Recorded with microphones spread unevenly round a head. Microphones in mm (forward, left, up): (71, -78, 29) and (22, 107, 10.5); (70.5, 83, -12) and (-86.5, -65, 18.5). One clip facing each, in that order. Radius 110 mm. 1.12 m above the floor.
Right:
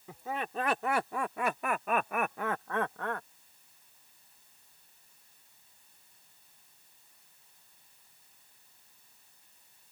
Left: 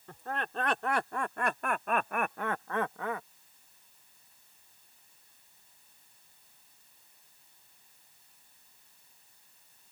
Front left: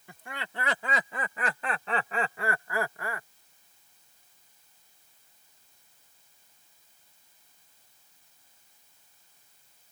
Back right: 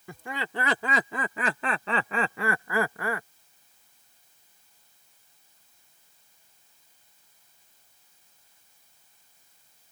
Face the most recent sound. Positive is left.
turn(degrees=-170)